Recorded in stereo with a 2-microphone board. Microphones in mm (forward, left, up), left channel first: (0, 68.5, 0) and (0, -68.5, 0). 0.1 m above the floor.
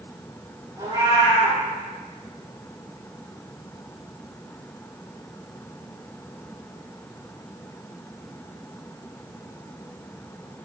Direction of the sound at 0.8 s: 25° right (ahead or behind).